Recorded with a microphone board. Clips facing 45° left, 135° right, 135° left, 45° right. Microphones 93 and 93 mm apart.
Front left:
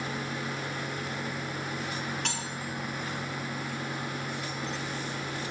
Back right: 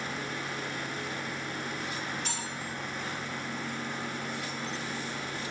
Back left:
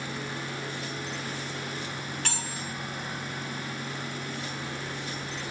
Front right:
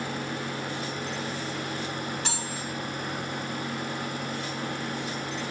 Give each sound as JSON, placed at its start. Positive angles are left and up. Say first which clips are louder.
{"t": 2.2, "sound": "cutlery clinking", "louder": "front left 2 dB, front right 2 dB", "azimuth_deg": 30, "distance_m": 3.0}